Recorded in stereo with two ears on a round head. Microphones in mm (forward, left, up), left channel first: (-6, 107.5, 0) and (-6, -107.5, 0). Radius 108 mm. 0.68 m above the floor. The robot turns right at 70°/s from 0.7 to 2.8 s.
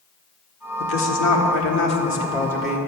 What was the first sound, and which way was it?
A woman speaking, 50° left.